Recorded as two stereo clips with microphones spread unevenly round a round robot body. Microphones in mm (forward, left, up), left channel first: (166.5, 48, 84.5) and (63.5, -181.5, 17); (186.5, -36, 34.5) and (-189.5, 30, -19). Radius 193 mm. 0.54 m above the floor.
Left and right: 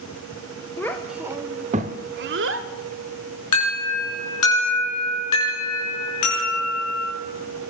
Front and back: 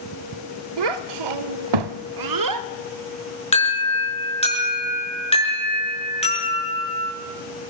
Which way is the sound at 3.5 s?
65° left.